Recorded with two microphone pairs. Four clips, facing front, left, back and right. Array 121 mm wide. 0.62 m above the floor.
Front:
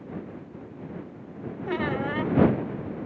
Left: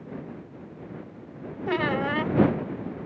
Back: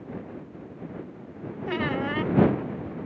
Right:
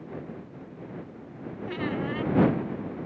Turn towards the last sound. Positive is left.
turn(degrees=80)